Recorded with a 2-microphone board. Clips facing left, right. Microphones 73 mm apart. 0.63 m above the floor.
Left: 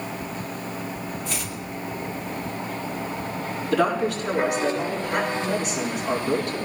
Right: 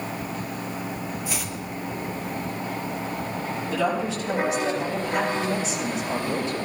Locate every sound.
1.2 s chopping: 10° right (ahead or behind), 1.8 m
3.7 s a woman speaking: 65° left (ahead or behind), 6 m